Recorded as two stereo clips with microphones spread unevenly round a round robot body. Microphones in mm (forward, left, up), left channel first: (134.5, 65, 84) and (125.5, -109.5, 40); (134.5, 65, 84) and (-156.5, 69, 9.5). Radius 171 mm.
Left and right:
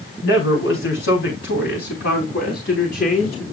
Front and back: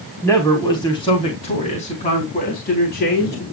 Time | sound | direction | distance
0.2 | a man speaking | 80° left | 4 m